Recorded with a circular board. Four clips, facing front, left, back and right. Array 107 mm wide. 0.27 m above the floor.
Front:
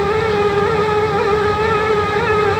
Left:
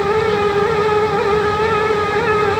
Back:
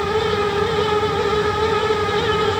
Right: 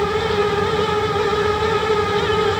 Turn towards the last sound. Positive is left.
No sound to turn to.